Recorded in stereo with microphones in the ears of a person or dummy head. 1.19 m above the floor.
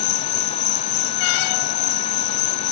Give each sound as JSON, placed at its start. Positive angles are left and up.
{"t": 0.0, "sound": "an insect", "side_deg": 80}